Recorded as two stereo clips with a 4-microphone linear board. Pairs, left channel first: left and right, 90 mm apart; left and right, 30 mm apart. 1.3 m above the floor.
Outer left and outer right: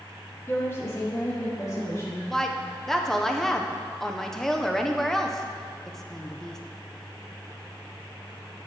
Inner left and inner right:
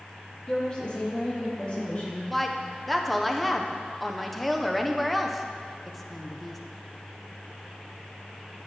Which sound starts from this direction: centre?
A woman speaking, at 2.3 s.